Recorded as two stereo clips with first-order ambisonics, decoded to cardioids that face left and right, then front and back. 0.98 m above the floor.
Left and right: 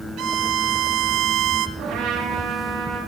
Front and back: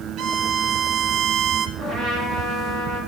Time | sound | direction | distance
0.2 | a violin | 135° right | 0.9 m
1.8 | a trumpet | 115° right | 7 m